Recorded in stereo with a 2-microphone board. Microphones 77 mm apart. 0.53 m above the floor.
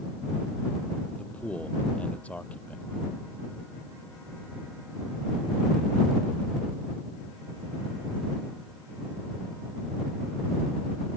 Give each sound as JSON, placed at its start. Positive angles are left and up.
{"t": 1.2, "sound": "a man speaking", "side_deg": 15}